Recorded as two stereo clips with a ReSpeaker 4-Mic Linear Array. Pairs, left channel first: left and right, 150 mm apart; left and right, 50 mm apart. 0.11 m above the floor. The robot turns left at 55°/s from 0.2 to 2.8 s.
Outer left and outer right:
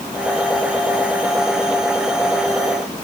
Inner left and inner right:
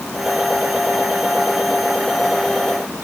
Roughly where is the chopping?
No chopping in this recording.